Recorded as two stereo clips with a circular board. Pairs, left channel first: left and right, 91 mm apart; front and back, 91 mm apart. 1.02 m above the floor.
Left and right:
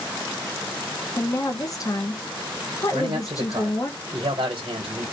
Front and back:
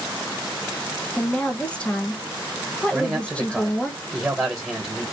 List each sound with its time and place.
1.2 s a woman speaking: 70° left, 0.7 m
2.9 s a man speaking: 105° right, 0.8 m